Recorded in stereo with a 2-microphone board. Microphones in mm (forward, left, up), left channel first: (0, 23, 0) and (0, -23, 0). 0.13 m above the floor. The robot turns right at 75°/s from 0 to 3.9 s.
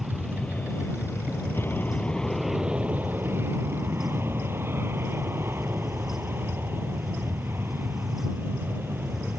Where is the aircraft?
5° right; by 9.4 s 70° right.